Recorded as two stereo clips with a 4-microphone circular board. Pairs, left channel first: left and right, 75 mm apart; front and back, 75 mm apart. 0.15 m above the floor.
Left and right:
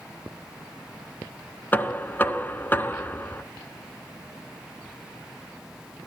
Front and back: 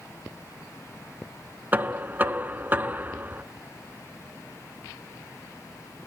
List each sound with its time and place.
1.7 s knocking: 135° left, 0.9 m